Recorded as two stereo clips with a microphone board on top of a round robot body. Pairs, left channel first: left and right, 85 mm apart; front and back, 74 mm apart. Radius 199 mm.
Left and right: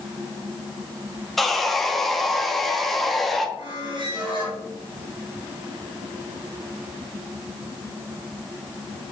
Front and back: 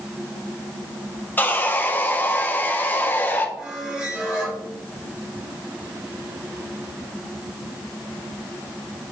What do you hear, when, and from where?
1.4 s sawing: 5° left, 1.4 m
3.6 s a squeak: 110° right, 3.5 m